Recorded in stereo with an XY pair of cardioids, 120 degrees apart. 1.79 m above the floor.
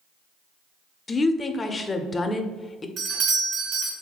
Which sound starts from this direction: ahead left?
A woman speaking, at 1.1 s.